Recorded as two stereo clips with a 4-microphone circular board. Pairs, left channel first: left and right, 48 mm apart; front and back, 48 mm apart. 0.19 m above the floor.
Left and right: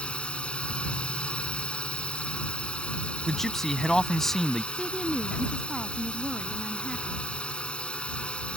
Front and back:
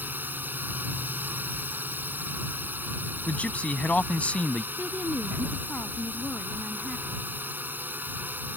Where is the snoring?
No snoring in this recording.